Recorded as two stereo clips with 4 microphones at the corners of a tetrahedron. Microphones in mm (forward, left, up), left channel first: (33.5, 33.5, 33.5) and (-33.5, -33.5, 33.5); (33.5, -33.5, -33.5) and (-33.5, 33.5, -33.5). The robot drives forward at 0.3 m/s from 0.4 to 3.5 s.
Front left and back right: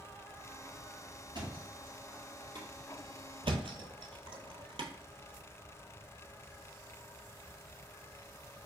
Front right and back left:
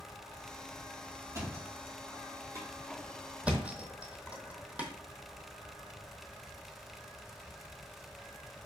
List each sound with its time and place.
1.3 s a thud: 170° right, 2.0 m
3.4 s a thud: 150° right, 0.7 m